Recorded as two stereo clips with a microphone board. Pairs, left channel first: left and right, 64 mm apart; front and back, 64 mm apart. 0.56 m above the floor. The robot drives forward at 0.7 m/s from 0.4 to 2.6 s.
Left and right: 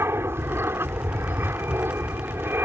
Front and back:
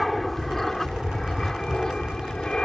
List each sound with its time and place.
0.0 s an aircraft: 90° right; by 2.7 s 70° right